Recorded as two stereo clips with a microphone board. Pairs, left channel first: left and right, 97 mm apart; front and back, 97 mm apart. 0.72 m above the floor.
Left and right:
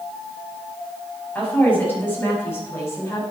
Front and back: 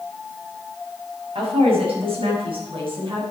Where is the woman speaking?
165° left, 6 m; by 3.2 s 150° left, 5.5 m.